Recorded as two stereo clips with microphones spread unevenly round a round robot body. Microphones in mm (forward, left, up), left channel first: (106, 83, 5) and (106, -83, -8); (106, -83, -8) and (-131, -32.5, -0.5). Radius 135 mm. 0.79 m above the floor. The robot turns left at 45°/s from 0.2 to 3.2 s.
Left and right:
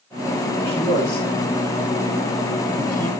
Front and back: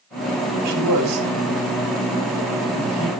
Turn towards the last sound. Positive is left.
turn(degrees=50)